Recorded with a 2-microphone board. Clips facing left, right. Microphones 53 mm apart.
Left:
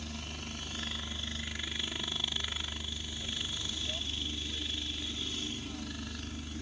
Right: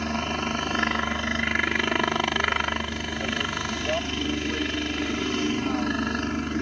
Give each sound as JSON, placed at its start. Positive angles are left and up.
{"t": 0.0, "sound": "a helicopter", "side_deg": -55}